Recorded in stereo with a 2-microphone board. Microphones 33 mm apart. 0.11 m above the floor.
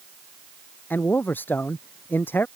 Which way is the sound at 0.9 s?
75° left (ahead or behind).